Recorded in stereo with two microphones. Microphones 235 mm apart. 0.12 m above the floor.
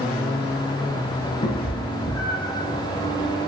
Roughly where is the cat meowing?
Left.